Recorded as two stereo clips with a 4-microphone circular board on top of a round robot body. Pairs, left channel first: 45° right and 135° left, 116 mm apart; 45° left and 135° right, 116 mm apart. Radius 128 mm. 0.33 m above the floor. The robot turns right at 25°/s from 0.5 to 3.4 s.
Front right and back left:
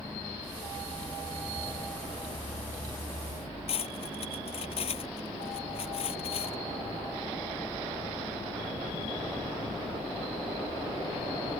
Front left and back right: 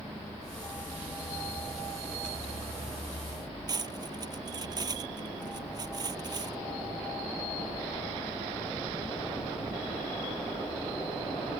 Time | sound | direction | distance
3.7 | cutlery clinking | 80° right | ?